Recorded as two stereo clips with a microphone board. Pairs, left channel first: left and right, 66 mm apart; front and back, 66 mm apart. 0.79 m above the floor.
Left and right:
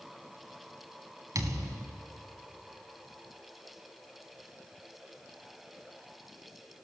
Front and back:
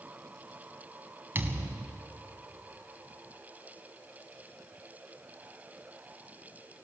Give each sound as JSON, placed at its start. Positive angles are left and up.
{"t": 1.4, "sound": "a thud", "azimuth_deg": -120, "distance_m": 1.8}